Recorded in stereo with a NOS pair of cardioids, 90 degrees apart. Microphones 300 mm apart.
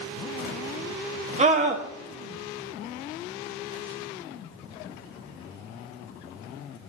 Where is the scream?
25° right, 1.0 m.